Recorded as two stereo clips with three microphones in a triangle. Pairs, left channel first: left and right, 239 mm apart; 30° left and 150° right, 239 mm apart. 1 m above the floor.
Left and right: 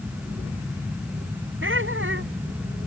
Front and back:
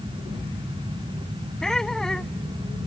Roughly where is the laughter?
Ahead right.